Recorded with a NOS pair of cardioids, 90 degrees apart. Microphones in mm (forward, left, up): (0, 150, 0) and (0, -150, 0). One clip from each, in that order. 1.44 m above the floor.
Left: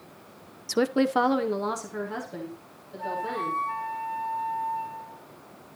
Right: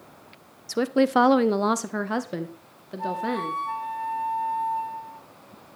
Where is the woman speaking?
15° left, 0.7 m; by 3.6 s 70° right, 2.5 m.